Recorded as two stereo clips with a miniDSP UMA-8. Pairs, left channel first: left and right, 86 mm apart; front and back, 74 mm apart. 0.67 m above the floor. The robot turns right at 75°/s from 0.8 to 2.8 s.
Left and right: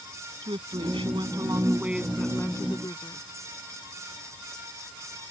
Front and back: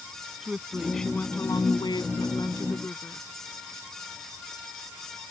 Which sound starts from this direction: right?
A woman speaking, at 0.4 s.